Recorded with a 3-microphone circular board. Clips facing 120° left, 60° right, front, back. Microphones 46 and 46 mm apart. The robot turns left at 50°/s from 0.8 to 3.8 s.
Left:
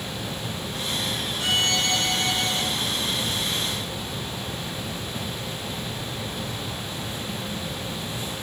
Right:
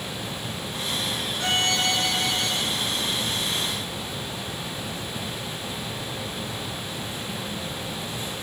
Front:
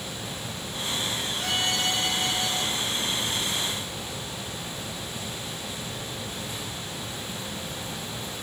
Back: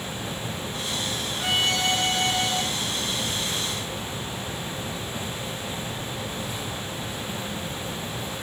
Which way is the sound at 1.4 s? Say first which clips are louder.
Even, back 4 dB; 105° right.